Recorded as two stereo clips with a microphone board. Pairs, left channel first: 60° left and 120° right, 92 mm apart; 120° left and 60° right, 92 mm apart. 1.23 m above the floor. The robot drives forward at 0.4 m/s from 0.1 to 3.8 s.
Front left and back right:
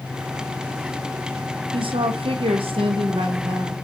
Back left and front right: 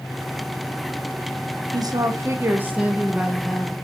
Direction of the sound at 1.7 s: 100° right.